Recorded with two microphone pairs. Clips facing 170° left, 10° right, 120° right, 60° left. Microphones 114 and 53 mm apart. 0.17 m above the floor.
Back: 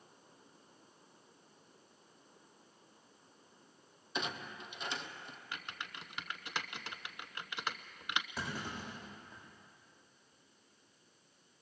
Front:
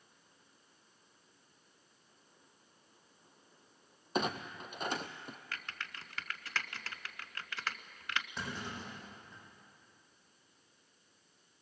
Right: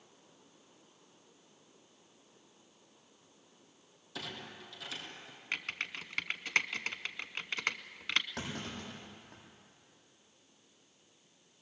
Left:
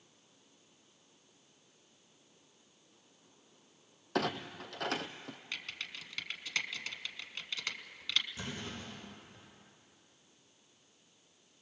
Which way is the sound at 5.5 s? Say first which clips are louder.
Back 2 dB, right 7 dB; 130° right.